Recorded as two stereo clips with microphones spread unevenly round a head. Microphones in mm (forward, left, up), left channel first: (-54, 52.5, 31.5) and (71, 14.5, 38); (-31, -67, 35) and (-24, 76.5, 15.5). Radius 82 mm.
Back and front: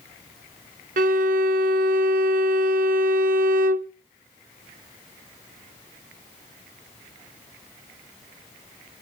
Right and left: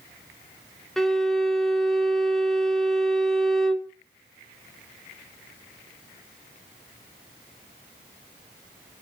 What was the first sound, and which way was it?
A violin, 5° right.